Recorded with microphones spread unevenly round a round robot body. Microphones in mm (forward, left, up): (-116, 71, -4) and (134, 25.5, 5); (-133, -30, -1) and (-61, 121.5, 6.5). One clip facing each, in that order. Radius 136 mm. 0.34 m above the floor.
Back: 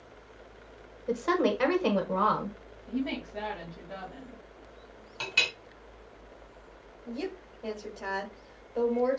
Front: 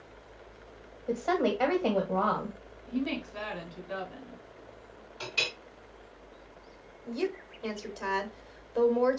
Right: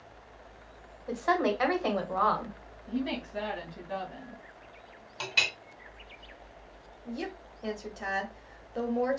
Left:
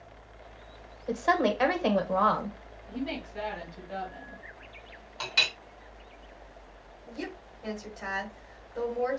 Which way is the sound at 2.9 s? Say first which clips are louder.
Even, right 2 dB; 80° right.